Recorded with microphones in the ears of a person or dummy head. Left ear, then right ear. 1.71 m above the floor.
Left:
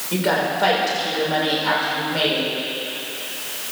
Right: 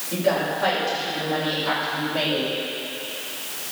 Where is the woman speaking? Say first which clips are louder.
Left 2 dB; 80° left, 6 m; by 2.5 s 85° left, 6 m.